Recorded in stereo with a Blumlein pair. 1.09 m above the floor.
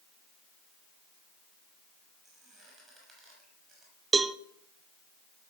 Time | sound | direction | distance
2.2 | a squeak | 10° right | 6.5 m
4.1 | a cowbell | 15° right | 0.5 m